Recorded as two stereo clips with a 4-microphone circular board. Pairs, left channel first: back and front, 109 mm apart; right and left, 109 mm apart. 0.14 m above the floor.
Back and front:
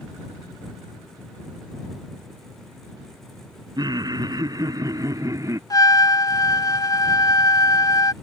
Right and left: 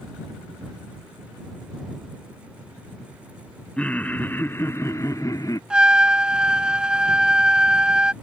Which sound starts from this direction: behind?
A trumpet, at 5.7 s.